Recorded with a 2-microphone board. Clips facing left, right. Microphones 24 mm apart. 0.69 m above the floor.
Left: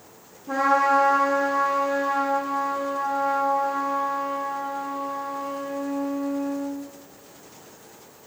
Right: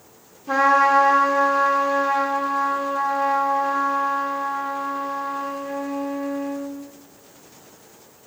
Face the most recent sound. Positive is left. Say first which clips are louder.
# right 4 dB
turn(degrees=-40)  # may be behind; listen again after turning